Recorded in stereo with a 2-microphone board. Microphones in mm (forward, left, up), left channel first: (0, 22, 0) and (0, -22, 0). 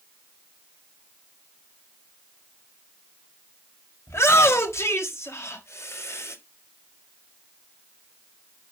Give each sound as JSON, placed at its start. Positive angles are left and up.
{"t": 4.1, "sound": "a shout", "side_deg": 80, "distance_m": 4.0}